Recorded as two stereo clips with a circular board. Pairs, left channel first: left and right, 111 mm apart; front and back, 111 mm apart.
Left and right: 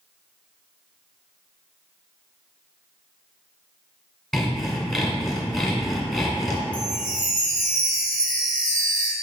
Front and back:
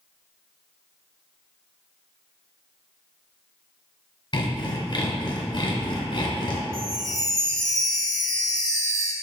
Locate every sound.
4.3 s sawing: 5° left, 1.3 m
6.7 s a chime: 20° left, 1.2 m